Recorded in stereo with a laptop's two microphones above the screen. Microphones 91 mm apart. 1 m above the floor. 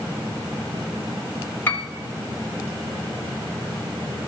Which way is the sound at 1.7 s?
20° left (ahead or behind).